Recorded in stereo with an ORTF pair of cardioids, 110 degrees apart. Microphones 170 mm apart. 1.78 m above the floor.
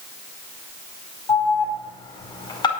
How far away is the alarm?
About 4.5 m.